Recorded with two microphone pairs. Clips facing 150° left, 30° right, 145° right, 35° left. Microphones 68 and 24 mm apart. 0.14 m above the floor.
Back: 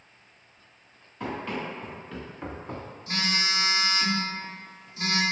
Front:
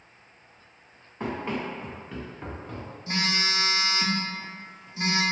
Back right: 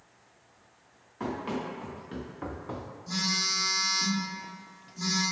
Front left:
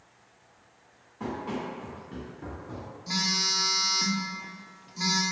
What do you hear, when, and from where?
1.2 s running footsteps: 90° right, 1.4 m; by 2.9 s 160° right, 0.5 m
3.1 s a phone buzzing: 30° left, 0.7 m